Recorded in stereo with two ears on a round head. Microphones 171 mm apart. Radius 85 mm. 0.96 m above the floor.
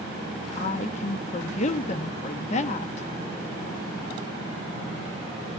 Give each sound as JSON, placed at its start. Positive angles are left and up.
{"t": 0.6, "sound": "a woman speaking", "side_deg": 35, "distance_m": 1.0}